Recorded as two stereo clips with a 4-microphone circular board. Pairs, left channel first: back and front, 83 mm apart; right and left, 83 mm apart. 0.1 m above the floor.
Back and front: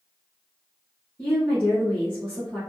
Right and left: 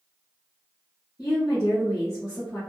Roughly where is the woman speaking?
Right.